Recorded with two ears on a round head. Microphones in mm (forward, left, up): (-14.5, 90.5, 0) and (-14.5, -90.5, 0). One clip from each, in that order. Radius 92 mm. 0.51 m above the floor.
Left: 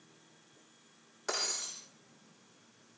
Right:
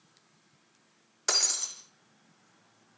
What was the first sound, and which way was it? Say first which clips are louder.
Breaking glass: right 7 dB; 55° right (ahead or behind).